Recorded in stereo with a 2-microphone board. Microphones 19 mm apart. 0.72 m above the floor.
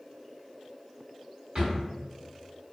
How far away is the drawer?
About 1.4 m.